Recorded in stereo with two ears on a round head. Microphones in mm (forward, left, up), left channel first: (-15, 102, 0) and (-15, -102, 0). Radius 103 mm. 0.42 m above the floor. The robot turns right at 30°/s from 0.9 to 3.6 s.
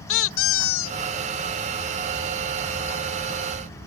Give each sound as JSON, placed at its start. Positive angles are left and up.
{"t": 0.1, "sound": "a squeak", "side_deg": 60}